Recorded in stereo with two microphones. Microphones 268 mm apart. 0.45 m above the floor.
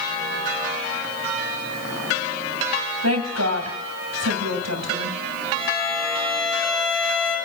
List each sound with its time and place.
3.0 s a woman speaking: 70° right (ahead or behind), 3 m
5.5 s a violin: 45° left (ahead or behind), 7 m